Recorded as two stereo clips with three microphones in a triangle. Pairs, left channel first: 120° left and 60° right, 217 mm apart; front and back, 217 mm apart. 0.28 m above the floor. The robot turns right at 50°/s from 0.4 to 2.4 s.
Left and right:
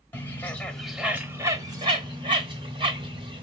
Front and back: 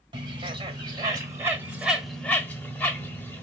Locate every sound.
0.1 s a bird: 175° right, 1.0 m; by 3.4 s 75° right, 1.0 m